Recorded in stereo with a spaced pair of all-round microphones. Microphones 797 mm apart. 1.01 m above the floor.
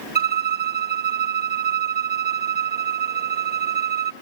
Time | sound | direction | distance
0.1 | a violin | 10° right (ahead or behind) | 0.7 m